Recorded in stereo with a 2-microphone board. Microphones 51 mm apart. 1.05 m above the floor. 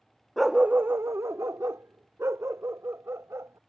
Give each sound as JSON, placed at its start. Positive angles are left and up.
{"t": 0.4, "sound": "a dog barking", "side_deg": 0}